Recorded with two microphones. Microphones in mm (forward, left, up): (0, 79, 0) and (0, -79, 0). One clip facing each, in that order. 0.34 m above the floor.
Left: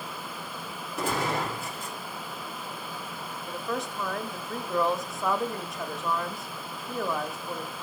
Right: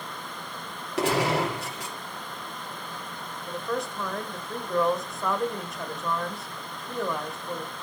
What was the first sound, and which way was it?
A gunshot, 80° right.